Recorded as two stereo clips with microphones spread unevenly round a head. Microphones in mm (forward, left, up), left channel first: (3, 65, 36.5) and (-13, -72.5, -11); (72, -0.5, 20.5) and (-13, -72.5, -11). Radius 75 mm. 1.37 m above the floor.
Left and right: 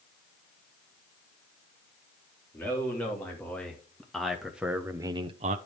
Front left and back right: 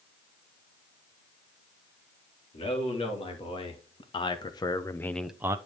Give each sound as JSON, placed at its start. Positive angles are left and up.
{"t": 2.5, "sound": "a man speaking", "azimuth_deg": 5, "distance_m": 3.5}